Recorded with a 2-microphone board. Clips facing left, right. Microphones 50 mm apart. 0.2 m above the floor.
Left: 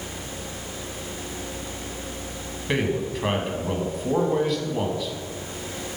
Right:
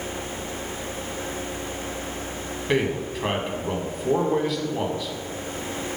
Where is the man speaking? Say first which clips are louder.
Right 1 dB; centre (ahead or behind), 1.4 m.